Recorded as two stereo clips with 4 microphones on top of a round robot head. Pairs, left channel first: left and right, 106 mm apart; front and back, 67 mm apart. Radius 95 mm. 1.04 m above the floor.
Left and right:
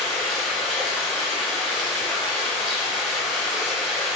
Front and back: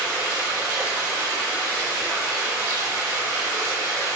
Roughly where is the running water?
Behind.